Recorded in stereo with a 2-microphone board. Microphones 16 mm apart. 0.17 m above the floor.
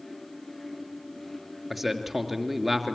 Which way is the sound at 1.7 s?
Centre (ahead or behind).